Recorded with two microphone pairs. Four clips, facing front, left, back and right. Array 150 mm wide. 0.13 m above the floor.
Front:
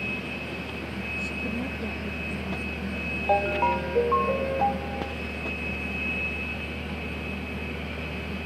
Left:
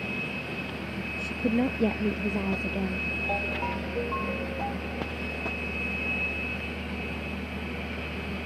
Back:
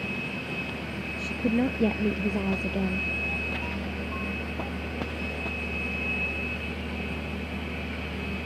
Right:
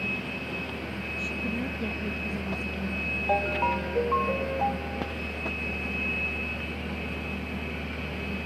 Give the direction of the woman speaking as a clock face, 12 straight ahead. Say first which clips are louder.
Left 7 dB, back 8 dB; 8 o'clock.